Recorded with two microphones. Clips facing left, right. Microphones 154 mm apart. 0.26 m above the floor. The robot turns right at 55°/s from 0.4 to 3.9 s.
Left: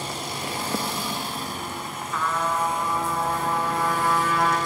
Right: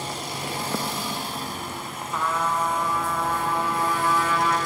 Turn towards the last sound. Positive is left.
turn(degrees=80)